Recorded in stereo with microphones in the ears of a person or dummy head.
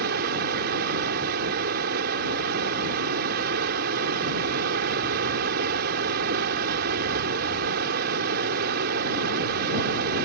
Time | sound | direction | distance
0.0 | running water | 60° right (ahead or behind) | ?